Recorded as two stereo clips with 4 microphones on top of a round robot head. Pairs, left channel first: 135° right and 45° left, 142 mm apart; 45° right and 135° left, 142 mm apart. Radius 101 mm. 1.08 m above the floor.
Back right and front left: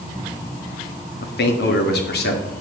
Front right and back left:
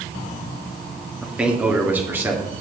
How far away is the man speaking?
About 1.8 m.